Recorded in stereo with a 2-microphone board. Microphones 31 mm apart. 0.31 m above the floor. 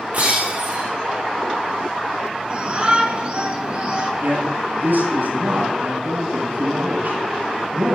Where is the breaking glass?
60° right (ahead or behind), 5.5 m.